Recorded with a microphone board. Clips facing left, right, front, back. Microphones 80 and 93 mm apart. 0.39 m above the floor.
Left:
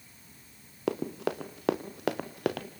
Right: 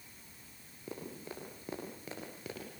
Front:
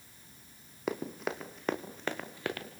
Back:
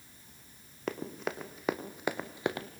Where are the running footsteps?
85° left, 3 m; by 2.7 s 115° left, 2.5 m.